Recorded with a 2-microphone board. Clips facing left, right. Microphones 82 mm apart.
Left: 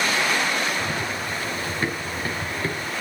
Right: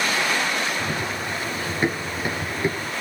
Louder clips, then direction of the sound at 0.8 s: Even; 15° right (ahead or behind).